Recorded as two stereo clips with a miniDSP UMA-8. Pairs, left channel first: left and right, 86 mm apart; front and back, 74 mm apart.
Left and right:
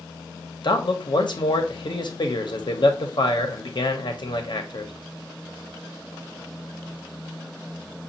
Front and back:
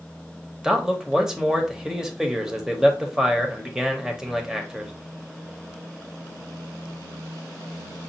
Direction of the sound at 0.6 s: 100° left.